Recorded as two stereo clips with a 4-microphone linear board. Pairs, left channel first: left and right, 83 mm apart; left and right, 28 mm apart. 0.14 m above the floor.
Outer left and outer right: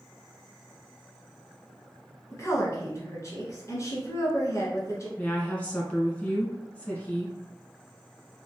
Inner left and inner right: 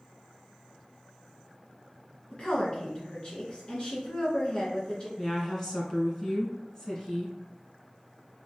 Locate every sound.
2.3 s a woman speaking: 40° left (ahead or behind), 1.4 m
5.2 s a woman speaking: 15° left (ahead or behind), 1.2 m